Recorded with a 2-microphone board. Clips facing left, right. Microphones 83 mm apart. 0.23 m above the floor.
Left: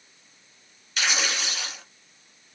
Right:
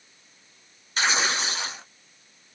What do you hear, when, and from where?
1.0 s tearing paper: 30° right (ahead or behind), 1.4 m